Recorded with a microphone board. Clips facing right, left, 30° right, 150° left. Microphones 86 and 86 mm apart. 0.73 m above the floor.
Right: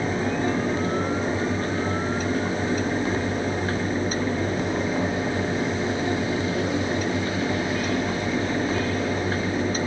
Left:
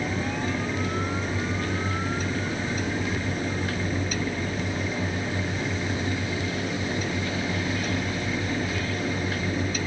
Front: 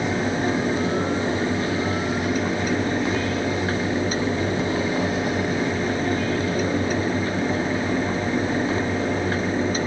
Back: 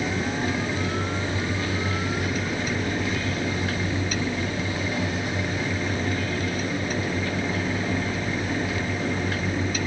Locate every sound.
Only background noise.